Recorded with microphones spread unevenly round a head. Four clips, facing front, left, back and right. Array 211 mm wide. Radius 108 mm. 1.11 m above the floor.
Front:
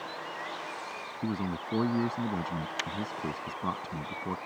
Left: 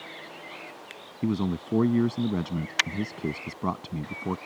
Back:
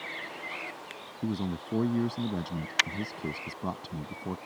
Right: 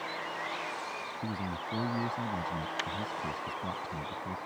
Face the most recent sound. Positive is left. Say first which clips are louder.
# left 11 dB, back 1 dB
turn(degrees=80)